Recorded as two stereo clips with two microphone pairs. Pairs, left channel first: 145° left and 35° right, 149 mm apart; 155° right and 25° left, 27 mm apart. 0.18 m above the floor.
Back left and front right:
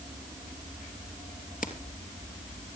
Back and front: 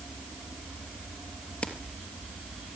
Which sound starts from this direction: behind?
Keys jangling, at 1.6 s.